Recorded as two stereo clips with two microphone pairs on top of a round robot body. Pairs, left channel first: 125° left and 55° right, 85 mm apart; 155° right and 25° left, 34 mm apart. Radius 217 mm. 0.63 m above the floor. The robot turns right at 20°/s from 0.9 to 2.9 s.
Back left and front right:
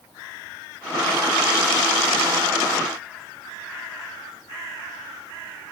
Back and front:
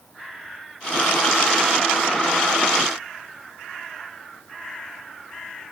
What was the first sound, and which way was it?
Only background noise.